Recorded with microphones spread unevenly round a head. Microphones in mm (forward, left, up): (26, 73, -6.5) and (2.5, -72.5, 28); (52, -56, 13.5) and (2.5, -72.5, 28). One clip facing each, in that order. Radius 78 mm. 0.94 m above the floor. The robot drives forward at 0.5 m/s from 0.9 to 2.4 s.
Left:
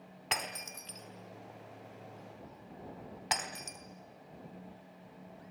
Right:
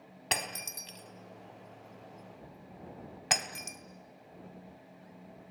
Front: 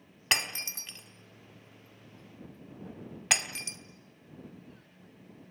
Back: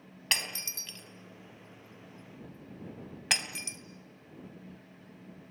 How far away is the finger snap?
I don't hear a finger snap.